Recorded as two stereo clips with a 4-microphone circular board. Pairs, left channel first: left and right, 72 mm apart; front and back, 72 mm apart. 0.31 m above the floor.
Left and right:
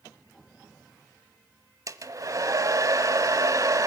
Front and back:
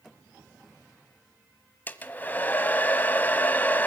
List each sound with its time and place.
1.9 s a hair dryer: 60° right, 1.3 m